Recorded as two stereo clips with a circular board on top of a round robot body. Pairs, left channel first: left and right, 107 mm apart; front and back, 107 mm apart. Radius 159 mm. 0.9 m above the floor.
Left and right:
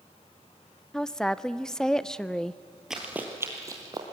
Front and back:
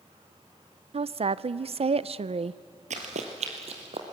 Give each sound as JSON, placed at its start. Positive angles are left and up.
{"t": 0.9, "sound": "a woman speaking", "azimuth_deg": 175, "distance_m": 0.5}
{"t": 2.9, "sound": "running footsteps", "azimuth_deg": -175, "distance_m": 1.5}